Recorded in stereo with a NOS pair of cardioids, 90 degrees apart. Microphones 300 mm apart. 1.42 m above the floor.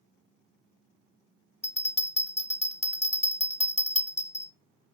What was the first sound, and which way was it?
A bell, 20° left.